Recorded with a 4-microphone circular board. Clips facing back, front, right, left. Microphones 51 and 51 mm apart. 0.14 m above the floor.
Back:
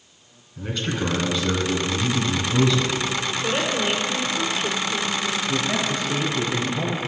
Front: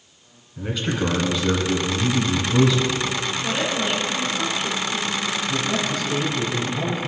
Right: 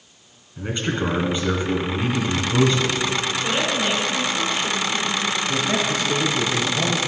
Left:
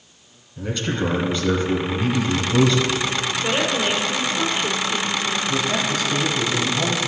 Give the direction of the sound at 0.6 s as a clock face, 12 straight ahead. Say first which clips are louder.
Front 2 dB, even; 2 o'clock.